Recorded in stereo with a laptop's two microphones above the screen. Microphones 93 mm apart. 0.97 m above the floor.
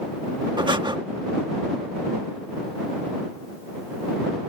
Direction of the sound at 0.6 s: 55° right (ahead or behind).